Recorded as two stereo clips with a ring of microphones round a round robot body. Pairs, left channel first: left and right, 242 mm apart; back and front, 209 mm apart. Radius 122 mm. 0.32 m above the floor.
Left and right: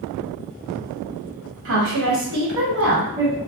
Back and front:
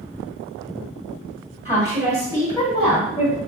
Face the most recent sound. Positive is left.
turn(degrees=-45)